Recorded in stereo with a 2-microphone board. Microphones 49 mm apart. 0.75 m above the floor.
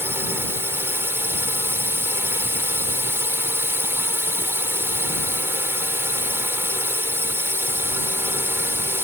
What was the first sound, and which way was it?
A drone, 50° right (ahead or behind).